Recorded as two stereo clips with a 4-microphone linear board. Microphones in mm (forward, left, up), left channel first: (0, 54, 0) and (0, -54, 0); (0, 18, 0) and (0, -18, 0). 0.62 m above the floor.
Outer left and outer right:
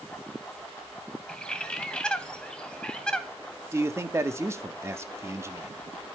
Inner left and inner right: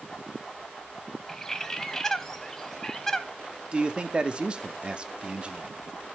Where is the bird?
10° left (ahead or behind), 0.9 m.